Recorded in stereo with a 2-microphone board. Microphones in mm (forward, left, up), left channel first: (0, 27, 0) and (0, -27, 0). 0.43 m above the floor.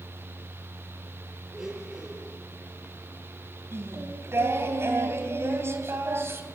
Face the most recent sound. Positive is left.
turn(degrees=-55)  # may be behind; listen again after turning